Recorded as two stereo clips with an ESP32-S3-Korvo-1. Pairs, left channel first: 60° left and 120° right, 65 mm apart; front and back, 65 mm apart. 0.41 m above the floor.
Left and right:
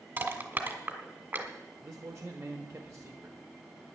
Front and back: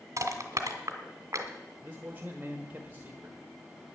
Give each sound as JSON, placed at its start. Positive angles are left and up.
{"t": 0.2, "sound": "crushing", "azimuth_deg": -170, "distance_m": 1.9}
{"t": 1.8, "sound": "a man speaking", "azimuth_deg": -130, "distance_m": 1.1}